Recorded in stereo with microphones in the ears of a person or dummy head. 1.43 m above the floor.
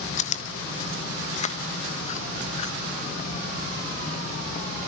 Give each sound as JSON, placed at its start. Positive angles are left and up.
{"t": 0.2, "sound": "chewing", "side_deg": 45, "distance_m": 1.1}